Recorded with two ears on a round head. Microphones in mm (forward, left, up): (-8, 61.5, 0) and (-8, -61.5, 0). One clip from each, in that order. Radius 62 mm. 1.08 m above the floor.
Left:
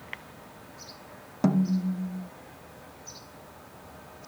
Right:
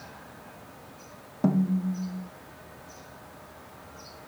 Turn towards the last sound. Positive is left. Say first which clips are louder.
# even
turn(degrees=45)  # may be behind; listen again after turning